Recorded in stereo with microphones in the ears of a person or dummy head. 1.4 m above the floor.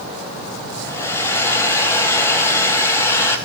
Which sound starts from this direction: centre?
A hair dryer, at 0.8 s.